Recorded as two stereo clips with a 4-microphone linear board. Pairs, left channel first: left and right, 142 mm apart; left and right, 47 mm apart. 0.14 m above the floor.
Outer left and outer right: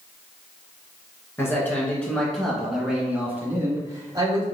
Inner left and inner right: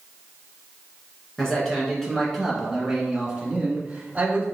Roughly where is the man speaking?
Centre.